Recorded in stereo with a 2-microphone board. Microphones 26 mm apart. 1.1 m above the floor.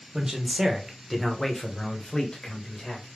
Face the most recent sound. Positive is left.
turn(degrees=45)  # may be behind; listen again after turning